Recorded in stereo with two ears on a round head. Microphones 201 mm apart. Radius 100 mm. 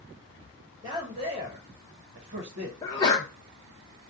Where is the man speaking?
20° right (ahead or behind), 1.2 m; by 2.7 s 60° right (ahead or behind), 0.9 m.